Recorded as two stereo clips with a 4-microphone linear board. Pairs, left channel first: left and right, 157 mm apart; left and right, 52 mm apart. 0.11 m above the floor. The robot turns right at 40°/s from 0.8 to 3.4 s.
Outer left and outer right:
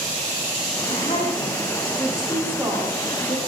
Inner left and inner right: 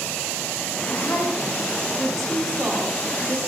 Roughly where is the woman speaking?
Behind left.